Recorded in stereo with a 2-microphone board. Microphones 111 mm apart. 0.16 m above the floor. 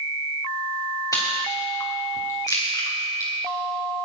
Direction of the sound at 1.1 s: 30° left (ahead or behind).